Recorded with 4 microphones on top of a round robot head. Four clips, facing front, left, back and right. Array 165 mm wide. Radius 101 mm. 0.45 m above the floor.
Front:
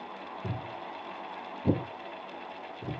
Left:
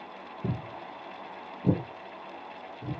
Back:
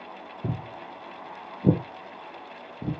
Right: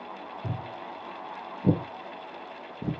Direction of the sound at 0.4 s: 145° left.